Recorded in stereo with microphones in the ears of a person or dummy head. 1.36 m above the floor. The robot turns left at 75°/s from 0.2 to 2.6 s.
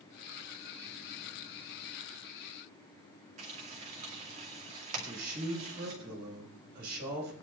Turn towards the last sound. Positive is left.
turn(degrees=-60)  # may be behind; listen again after turning